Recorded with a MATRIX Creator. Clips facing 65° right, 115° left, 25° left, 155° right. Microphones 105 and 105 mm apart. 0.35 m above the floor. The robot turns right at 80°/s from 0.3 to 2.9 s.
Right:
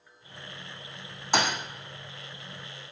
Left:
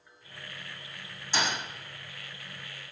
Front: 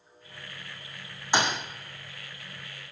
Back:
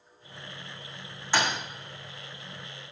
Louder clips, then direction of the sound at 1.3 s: Right 4 dB, front 1 dB; 45° right.